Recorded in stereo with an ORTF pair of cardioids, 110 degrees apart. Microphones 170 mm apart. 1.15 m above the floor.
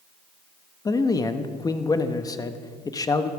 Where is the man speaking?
20° left, 1.1 m.